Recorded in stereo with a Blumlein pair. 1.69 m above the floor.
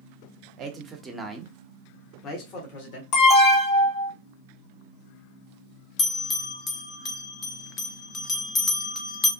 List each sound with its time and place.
0.6 s a man speaking: 30° right, 0.8 m; by 3.0 s 50° left, 1.1 m
3.1 s an alarm: 35° left, 0.8 m
6.0 s a bell: 25° left, 0.6 m